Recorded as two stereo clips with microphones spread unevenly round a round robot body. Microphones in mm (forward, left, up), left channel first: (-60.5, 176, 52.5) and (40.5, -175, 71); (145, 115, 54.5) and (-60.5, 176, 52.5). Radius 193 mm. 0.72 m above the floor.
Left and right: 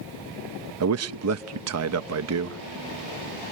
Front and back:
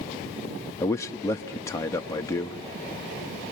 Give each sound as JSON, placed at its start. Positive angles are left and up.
{"t": 0.8, "sound": "a man speaking", "azimuth_deg": -85, "distance_m": 0.6}